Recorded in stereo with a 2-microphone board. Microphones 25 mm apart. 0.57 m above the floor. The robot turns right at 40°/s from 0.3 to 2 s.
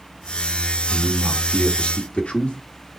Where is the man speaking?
30° left, 1.4 m; by 2.6 s 75° left, 1.4 m.